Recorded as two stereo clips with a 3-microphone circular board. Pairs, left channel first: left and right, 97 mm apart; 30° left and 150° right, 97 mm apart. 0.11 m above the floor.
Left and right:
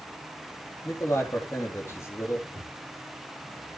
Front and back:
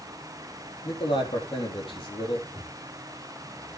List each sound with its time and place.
0.8 s a man speaking: 35° left, 3.5 m
2.5 s footsteps: 30° right, 9.5 m